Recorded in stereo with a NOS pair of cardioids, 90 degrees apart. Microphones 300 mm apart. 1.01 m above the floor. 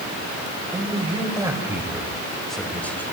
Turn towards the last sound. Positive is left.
turn(degrees=5)